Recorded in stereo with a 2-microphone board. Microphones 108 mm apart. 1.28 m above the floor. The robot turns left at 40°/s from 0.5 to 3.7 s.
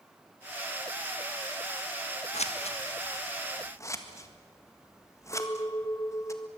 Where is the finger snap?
I don't hear a finger snap.